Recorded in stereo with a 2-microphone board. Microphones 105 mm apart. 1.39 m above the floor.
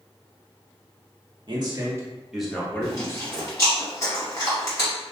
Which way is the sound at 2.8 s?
30° left (ahead or behind).